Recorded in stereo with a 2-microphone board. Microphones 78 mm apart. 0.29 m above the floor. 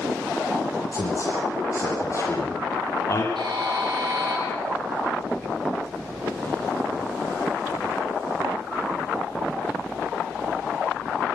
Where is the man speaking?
40° left (ahead or behind), 7.5 m.